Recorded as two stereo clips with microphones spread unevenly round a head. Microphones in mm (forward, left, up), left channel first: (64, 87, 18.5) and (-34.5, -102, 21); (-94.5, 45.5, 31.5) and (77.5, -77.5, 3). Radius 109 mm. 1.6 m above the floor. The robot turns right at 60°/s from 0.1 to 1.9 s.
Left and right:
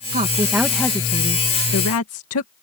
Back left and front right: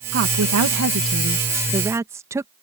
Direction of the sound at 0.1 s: 65° right.